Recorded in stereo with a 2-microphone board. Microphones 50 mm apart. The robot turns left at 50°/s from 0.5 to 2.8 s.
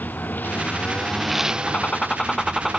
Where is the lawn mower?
35° left (ahead or behind); by 2.8 s 70° right (ahead or behind).